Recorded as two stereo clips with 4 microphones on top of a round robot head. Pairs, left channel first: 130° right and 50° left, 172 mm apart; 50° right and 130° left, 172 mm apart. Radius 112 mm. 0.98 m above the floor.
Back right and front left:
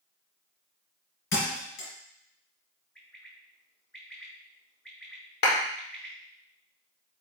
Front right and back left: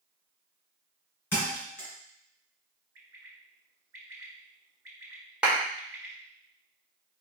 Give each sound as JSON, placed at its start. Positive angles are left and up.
{"t": 1.3, "sound": "a thud", "azimuth_deg": -125, "distance_m": 2.5}
{"t": 3.0, "sound": "a bird", "azimuth_deg": 145, "distance_m": 1.3}
{"t": 5.4, "sound": "a clap", "azimuth_deg": -145, "distance_m": 1.7}